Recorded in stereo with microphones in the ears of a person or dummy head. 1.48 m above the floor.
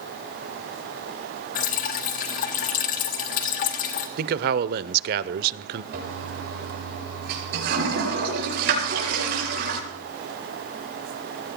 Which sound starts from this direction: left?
Dripping, at 1.6 s.